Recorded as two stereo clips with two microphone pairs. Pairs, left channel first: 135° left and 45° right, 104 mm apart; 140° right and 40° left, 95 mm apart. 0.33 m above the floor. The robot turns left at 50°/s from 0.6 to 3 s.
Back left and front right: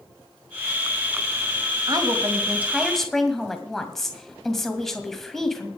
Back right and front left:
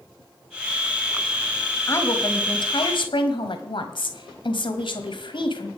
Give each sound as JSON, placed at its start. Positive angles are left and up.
{"t": 1.9, "sound": "a woman speaking", "azimuth_deg": -80, "distance_m": 1.8}